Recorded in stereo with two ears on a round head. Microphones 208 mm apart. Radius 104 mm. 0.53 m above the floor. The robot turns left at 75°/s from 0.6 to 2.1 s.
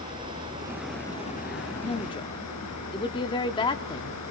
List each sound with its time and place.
0.0 s running water: 160° right, 7 m; by 4.3 s 90° left, 7 m
1.8 s a woman speaking: 25° left (ahead or behind), 1.2 m; by 4.2 s 20° left (ahead or behind), 1.2 m